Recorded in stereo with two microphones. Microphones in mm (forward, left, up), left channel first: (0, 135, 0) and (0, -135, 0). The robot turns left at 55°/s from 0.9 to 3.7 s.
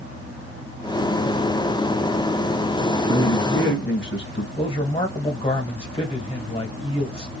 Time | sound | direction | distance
3.1 | a man speaking | 90° left | 2 m
4.6 | a man speaking | 20° left (ahead or behind) | 1.5 m